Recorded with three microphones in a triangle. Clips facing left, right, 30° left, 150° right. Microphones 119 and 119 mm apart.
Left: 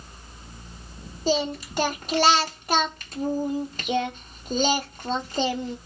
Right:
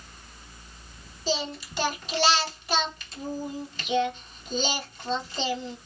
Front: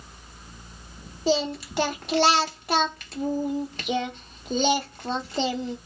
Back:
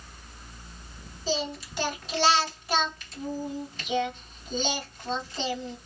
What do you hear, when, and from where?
1.3 s singing: 50° left, 1.0 m